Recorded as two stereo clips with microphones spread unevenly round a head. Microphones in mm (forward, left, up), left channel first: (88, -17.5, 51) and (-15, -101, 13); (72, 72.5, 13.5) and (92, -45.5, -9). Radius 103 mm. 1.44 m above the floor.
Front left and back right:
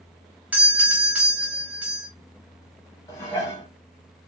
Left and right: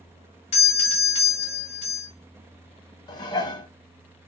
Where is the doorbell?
150° left, 0.5 m.